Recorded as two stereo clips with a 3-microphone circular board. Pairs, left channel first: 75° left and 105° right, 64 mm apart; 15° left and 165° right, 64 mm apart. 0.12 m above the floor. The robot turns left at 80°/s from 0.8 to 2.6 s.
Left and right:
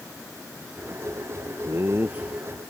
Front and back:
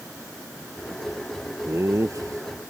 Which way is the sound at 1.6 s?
125° right.